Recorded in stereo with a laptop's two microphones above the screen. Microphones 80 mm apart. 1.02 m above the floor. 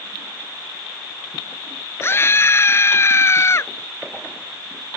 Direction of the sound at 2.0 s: 30° left (ahead or behind).